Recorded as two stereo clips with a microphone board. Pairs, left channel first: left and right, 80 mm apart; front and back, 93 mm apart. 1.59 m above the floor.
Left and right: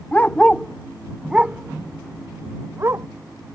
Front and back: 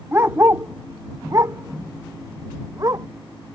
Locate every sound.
0.1 s a dog barking: 140° left; by 3.1 s 135° right